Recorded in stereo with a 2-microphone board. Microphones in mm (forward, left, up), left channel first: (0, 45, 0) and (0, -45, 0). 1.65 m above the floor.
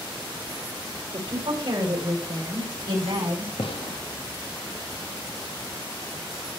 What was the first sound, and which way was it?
A woman speaking, 75° right (ahead or behind).